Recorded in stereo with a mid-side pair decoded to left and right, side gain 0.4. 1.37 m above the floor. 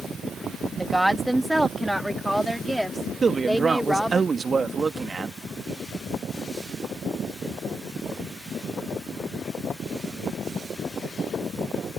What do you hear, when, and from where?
0.8 s a woman speaking: 10° right; by 4.2 s straight ahead
3.2 s a man speaking: 40° right